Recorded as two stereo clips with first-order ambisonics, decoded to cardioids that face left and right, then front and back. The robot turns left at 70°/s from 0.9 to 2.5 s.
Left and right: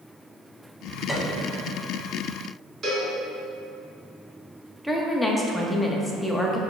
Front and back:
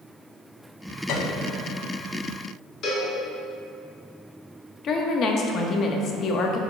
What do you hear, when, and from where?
1.1 s a piano: 10° left, 0.8 m; by 1.5 s 20° right, 0.8 m
2.8 s a cowbell: 35° right, 1.7 m
4.8 s a woman speaking: 5° left, 0.6 m